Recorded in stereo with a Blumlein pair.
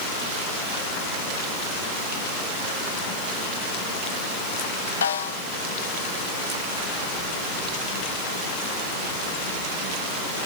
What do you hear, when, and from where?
5.0 s a snare drum: 65° left, 0.8 m